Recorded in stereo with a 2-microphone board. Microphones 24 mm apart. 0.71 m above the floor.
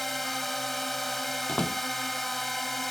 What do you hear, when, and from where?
0.0 s a drone: 5° left (ahead or behind)
1.5 s a door slam: 40° left (ahead or behind)